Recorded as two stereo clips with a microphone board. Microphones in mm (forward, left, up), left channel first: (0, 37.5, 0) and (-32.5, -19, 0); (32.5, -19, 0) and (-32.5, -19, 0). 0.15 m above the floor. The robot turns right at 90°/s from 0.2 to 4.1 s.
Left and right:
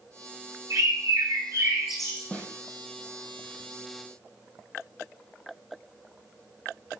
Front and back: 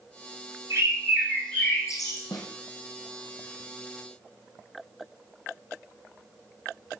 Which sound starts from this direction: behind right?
A bird, at 0.7 s.